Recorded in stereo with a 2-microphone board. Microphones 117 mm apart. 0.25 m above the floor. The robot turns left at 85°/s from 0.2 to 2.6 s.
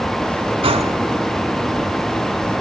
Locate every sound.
0.6 s a gunshot: 50° right (ahead or behind), 1.1 m; by 0.9 s 65° right (ahead or behind), 1.1 m